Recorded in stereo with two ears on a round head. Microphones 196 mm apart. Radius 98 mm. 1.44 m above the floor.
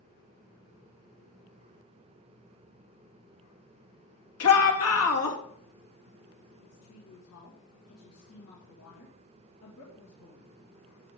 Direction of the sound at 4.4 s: 80° left.